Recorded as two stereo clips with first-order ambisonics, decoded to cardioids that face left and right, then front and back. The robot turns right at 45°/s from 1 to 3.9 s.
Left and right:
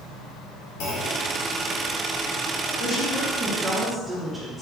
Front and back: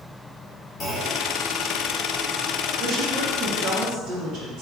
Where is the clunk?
65° left, 1.0 m; by 1.2 s 75° left, 1.0 m.